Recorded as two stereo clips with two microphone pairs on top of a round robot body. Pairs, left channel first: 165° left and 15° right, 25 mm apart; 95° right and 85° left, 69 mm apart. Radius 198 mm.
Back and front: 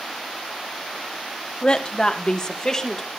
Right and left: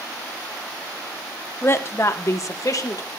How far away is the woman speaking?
About 1.3 m.